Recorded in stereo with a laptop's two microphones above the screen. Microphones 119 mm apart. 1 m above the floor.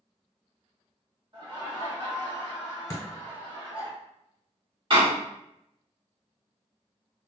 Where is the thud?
30° left (ahead or behind), 1.1 m.